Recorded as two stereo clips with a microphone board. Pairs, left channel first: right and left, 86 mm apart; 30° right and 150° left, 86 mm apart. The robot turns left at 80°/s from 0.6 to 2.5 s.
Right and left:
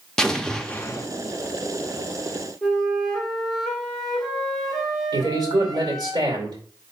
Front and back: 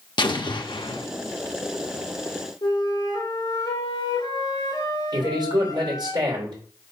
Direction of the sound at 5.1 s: 115° left.